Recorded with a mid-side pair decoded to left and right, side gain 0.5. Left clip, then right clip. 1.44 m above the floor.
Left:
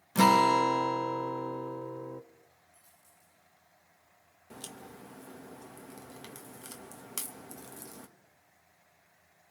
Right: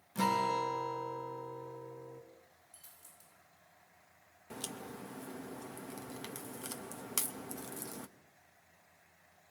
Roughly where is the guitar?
Ahead left.